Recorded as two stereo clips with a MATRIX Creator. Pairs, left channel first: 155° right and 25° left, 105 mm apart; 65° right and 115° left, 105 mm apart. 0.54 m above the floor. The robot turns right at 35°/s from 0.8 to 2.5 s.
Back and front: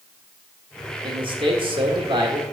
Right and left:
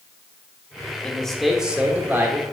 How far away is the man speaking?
About 1.2 m.